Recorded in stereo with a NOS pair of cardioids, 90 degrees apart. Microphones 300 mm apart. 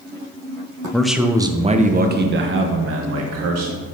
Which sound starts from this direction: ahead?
A man speaking, at 0.9 s.